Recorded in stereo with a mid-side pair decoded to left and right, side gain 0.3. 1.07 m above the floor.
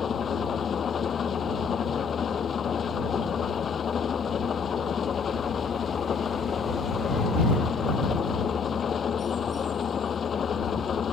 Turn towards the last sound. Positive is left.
turn(degrees=65)